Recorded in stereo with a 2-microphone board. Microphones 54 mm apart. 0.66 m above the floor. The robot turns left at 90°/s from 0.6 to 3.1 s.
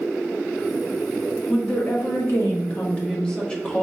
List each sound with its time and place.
1.5 s a woman speaking: 170° left, 1.1 m; by 3.8 s 25° left, 1.1 m